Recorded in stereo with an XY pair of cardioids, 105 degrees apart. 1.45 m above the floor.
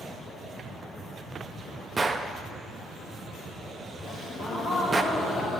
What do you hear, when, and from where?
2.0 s a gunshot: 25° right, 0.6 m
4.0 s a gasp: 35° left, 3 m